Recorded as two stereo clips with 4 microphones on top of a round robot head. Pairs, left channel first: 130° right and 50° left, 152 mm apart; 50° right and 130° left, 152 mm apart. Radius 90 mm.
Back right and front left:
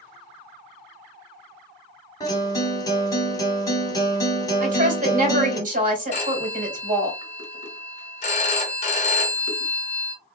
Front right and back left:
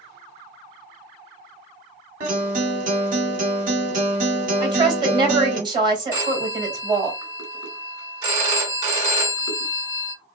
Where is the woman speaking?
70° left, 2.5 m.